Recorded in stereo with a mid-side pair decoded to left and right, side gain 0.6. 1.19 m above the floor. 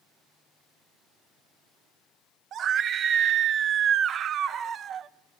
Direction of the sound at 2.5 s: 50° right.